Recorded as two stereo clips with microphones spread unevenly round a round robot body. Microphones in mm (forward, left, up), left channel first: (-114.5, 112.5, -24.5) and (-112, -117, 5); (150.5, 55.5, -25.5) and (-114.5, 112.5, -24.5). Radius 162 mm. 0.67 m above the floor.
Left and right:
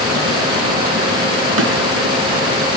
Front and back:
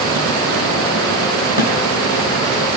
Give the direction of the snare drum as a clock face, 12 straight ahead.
4 o'clock.